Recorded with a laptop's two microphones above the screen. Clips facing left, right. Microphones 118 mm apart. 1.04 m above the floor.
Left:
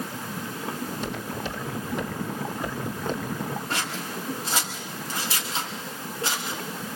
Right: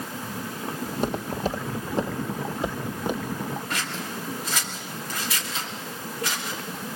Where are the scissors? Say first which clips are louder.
Left 1 dB; 30° left (ahead or behind), 3 m.